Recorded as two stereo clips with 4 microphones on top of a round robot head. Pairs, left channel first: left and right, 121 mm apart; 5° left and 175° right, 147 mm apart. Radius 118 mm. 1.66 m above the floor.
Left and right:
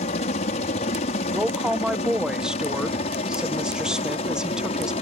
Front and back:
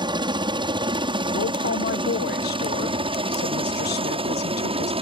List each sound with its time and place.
0.0 s a helicopter: 125° left; by 5.0 s 135° left
1.3 s a woman speaking: 5° right